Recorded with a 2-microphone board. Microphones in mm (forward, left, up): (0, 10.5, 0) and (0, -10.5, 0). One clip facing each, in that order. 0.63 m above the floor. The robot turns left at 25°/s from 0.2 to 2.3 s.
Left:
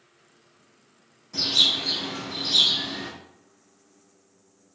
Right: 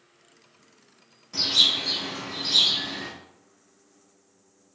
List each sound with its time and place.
1.3 s a bird: 20° right (ahead or behind), 1.3 m; by 3.1 s centre (ahead or behind), 1.3 m